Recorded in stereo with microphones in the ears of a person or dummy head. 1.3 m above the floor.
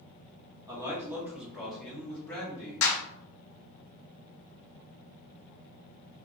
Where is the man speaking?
20° right (ahead or behind), 1.2 m; by 2.9 s 20° left (ahead or behind), 1.7 m.